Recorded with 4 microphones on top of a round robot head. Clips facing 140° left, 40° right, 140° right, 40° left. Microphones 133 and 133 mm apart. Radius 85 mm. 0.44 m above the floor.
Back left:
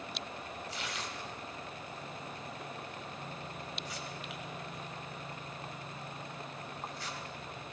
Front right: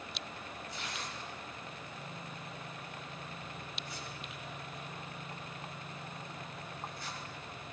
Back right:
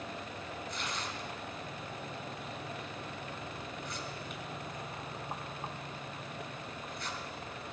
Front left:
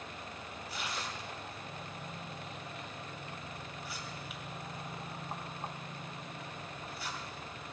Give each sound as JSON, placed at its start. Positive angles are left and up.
{"t": 0.7, "sound": "tearing paper", "azimuth_deg": 125, "distance_m": 1.9}